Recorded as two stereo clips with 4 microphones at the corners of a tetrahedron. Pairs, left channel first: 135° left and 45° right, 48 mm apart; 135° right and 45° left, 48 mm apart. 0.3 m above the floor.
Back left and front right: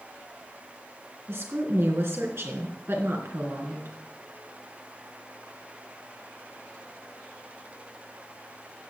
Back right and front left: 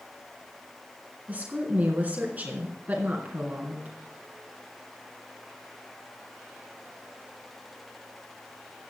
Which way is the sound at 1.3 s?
15° right.